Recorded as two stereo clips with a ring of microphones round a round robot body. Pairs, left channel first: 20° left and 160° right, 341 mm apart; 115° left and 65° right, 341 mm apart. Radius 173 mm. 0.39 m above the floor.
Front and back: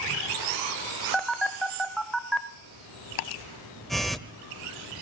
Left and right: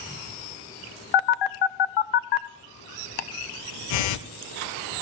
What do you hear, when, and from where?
1.1 s a phone buzzing: 110° left, 0.7 m
3.2 s ticking: 60° left, 0.6 m